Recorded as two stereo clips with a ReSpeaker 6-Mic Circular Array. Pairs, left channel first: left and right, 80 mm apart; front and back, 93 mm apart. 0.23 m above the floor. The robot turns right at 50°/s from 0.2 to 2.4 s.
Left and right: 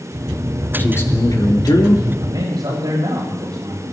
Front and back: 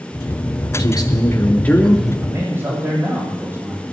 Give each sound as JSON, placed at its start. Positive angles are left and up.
{"t": 0.8, "sound": "a man speaking", "azimuth_deg": 30, "distance_m": 4.0}
{"t": 2.2, "sound": "a man speaking", "azimuth_deg": -125, "distance_m": 9.5}